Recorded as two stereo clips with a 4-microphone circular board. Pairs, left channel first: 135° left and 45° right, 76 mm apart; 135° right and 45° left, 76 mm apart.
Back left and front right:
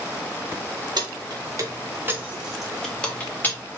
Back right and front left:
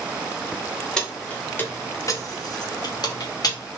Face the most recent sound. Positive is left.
turn(degrees=-165)